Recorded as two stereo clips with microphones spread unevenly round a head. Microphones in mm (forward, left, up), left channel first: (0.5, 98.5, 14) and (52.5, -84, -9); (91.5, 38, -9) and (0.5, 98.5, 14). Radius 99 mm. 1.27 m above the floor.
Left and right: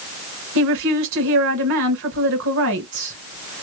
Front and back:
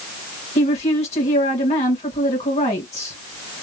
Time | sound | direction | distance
0.6 | a woman speaking | 75° right | 1.7 m